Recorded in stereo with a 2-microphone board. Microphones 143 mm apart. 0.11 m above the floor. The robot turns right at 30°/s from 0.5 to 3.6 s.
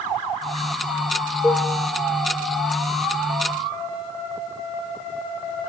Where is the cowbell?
20° left (ahead or behind), 3 m; by 1.7 s 10° left (ahead or behind), 3 m.